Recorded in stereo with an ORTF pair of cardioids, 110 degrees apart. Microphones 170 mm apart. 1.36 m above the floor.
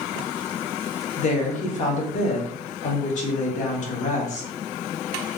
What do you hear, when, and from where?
1.2 s a woman speaking: 50° left, 1.3 m